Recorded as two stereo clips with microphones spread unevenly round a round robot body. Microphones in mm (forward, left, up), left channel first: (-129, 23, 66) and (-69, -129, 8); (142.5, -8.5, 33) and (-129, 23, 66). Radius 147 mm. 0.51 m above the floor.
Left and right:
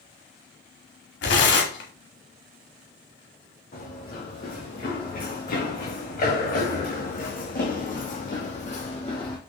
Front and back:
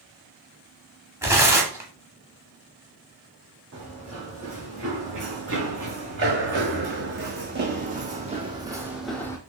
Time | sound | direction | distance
1.2 | tearing paper | 95° left | 0.9 m
3.7 | running footsteps | 135° left | 3 m